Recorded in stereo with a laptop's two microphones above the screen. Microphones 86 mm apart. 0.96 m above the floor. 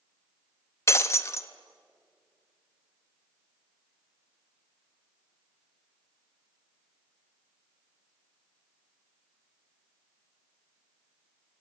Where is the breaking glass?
35° left (ahead or behind), 0.6 m.